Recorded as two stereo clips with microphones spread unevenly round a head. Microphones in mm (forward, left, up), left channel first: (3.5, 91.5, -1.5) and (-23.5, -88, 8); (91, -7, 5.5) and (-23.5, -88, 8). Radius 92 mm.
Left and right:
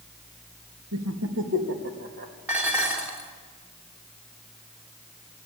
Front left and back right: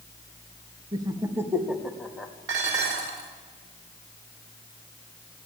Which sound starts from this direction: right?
Laughter, at 0.9 s.